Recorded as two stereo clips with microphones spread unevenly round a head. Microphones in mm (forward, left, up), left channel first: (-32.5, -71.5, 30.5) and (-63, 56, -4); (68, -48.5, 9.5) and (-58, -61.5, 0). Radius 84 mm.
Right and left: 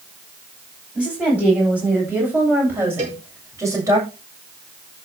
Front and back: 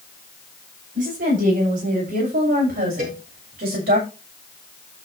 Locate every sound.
0.9 s a woman speaking: 170° right, 9 m; by 4.0 s 170° left, 7 m
3.0 s a cowbell: 140° left, 5 m